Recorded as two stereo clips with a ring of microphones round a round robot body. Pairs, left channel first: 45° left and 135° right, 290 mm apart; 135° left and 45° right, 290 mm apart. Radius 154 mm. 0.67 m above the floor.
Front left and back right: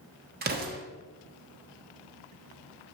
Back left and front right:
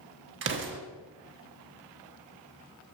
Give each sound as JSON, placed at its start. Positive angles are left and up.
{"t": 0.4, "sound": "an explosion", "azimuth_deg": -85, "distance_m": 1.1}